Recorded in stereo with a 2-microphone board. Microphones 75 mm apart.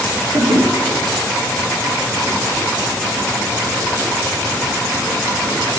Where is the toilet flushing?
80° right, 9.5 m.